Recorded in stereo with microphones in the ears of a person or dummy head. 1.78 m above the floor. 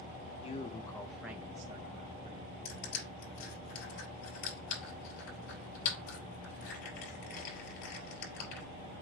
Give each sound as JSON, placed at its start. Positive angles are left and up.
{"t": 0.4, "sound": "a man speaking", "side_deg": 35, "distance_m": 0.7}
{"t": 2.6, "sound": "crushing", "side_deg": 55, "distance_m": 4.5}